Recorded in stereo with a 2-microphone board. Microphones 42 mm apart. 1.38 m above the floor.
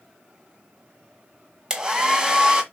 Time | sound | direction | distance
1.7 | a hair dryer | 15° right (ahead or behind) | 1.6 m